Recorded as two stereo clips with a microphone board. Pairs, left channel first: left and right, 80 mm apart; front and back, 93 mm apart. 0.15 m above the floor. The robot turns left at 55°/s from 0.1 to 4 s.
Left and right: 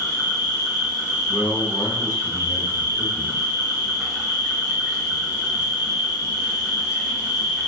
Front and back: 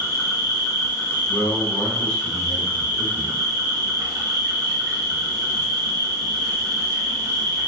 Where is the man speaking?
20° right, 1.1 m; by 3.4 s 135° right, 1.1 m.